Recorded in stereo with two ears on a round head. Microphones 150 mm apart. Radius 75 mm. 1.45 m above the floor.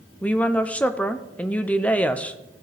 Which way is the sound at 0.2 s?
10° left (ahead or behind).